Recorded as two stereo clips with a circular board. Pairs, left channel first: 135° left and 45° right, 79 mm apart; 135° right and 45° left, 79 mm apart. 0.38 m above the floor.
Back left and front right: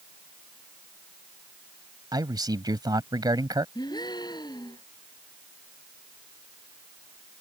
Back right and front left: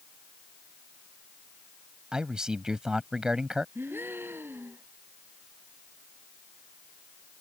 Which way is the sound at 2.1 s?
35° right.